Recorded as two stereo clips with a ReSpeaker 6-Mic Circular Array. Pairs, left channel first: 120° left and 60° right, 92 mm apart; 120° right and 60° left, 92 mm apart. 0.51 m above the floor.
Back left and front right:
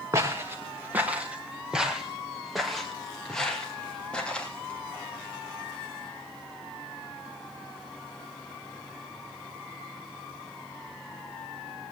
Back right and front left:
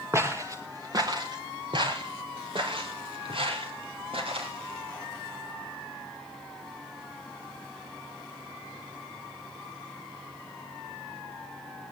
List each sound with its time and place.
0.1 s footsteps: straight ahead, 3 m; by 4.8 s 40° left, 6.5 m